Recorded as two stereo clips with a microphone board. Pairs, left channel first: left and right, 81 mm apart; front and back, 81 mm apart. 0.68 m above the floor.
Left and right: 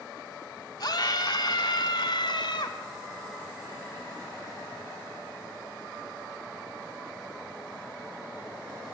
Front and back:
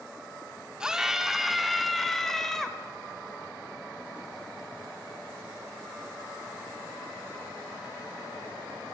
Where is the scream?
100° left, 1.8 m; by 2.8 s 80° left, 3.5 m.